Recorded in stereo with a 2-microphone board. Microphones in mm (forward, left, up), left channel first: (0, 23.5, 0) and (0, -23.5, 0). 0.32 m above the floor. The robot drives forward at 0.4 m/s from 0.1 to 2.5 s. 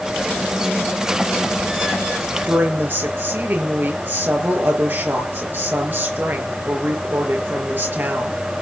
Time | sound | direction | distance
2.5 | a woman speaking | 50° right (ahead or behind) | 5.5 m